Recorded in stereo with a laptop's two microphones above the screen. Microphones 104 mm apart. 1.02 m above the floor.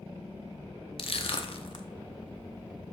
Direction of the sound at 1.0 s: 60° left (ahead or behind).